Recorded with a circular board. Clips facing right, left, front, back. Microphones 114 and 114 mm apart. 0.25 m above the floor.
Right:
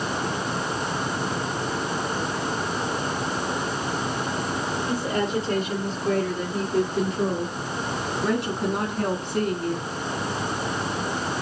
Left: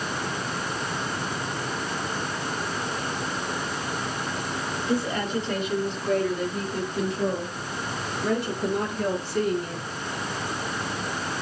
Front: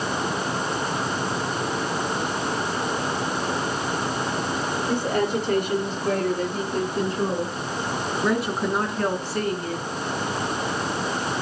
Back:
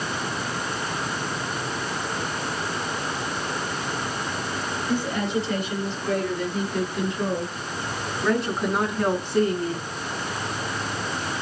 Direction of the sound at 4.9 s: 35° right.